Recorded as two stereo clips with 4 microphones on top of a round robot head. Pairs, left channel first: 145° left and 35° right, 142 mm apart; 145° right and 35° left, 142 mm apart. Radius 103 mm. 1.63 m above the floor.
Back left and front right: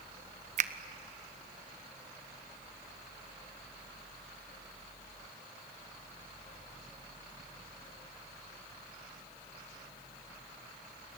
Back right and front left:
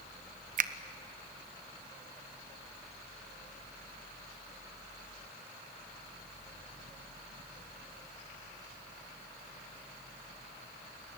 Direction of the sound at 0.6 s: 5° left.